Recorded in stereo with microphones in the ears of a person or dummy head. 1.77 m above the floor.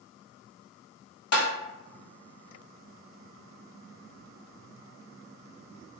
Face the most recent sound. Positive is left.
turn(degrees=55)  # may be behind; listen again after turning